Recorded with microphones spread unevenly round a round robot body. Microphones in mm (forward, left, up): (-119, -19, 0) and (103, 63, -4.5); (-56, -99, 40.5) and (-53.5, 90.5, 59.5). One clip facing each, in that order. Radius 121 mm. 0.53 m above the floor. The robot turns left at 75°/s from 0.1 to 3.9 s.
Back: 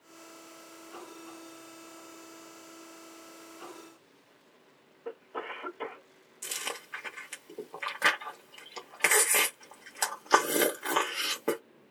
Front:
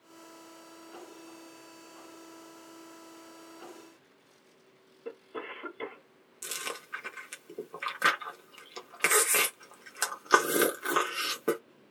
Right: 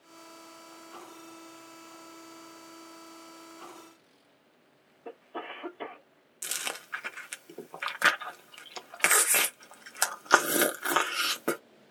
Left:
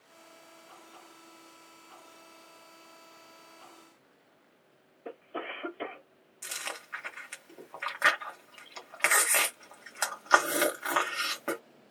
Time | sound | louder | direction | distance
5.0 | a cough | back 1 dB, left 1 dB | 35° left | 1.4 m
6.4 | chewing | even, right 2 dB | 55° right | 0.6 m